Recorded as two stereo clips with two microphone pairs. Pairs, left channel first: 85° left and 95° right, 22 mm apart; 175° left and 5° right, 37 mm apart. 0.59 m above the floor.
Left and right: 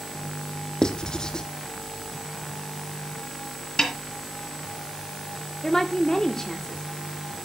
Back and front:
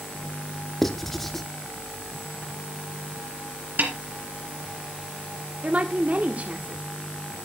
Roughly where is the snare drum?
Ahead left.